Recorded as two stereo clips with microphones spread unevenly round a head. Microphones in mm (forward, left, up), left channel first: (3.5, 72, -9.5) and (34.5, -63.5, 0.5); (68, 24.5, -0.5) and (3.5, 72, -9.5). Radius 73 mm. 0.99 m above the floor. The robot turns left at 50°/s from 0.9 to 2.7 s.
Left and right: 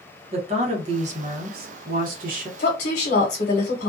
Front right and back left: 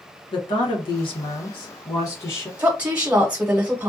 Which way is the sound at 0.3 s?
35° right.